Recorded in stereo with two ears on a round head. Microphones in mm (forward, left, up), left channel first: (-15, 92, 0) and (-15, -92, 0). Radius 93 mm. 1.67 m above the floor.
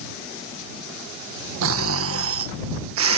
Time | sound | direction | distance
1.6 | snoring | 80° right | ?